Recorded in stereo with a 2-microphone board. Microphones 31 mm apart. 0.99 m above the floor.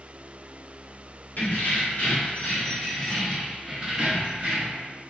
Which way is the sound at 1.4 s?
60° left (ahead or behind).